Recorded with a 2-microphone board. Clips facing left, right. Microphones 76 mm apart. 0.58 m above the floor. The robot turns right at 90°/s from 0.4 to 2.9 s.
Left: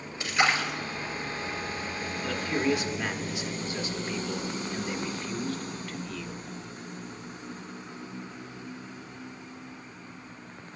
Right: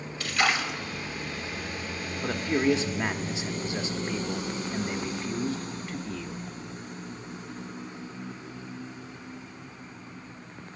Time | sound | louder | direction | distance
0.2 | a splash | left 1 dB | 20° left | 2.5 m
2.2 | a man speaking | right 3 dB | 110° right | 0.9 m